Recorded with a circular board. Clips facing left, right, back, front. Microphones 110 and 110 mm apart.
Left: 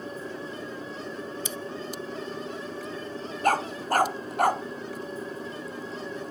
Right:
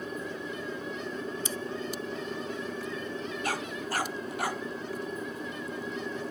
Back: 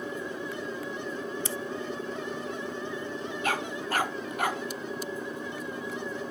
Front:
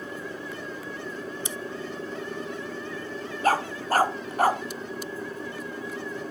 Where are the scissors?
65° right.